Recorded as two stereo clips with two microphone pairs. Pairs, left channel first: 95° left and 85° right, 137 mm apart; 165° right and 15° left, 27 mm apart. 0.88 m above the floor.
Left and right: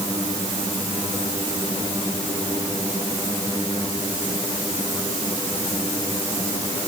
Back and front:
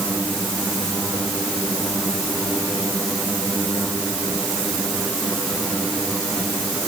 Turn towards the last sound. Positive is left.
No sound to turn to.